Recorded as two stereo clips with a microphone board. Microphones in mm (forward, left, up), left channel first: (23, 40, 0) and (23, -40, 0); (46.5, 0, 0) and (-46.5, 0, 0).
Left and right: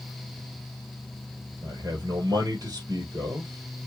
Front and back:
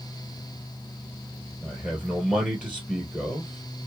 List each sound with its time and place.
1.6 s a man speaking: 100° right, 2 m